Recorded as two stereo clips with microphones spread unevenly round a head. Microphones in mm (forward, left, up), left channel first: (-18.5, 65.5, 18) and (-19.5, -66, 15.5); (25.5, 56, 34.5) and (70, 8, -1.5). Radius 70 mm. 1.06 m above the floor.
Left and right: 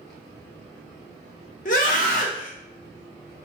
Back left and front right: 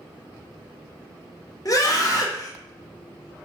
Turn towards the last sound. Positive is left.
turn(degrees=80)